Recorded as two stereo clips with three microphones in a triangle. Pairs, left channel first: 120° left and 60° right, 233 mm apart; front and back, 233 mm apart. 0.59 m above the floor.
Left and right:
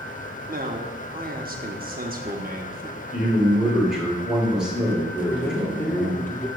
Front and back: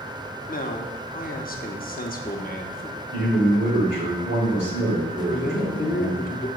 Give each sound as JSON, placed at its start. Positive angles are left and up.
{"t": 0.5, "sound": "a man speaking", "azimuth_deg": -30, "distance_m": 0.8}
{"t": 3.1, "sound": "a man speaking", "azimuth_deg": -145, "distance_m": 2.5}
{"t": 5.3, "sound": "a man speaking", "azimuth_deg": 40, "distance_m": 1.1}